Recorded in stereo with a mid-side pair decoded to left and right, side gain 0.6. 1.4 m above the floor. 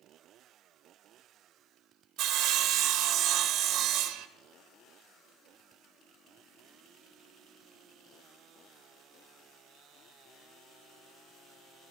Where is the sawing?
60° right, 0.8 m.